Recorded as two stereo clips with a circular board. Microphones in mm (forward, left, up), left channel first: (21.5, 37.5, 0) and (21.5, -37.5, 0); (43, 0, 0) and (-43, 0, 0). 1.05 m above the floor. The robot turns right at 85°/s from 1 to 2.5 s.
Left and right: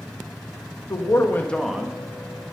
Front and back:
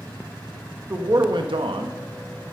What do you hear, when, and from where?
0.9 s a man speaking: 125° left, 1.0 m; by 2.0 s 155° right, 1.0 m